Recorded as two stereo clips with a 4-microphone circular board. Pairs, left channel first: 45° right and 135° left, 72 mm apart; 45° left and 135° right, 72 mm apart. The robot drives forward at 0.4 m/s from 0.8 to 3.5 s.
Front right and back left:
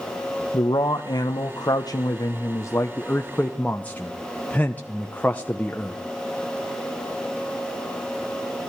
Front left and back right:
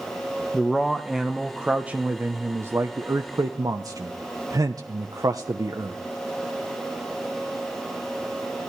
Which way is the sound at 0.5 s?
40° right.